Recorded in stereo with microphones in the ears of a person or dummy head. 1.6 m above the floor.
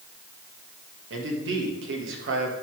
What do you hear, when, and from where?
1.1 s a man speaking: 75° right (ahead or behind), 2 m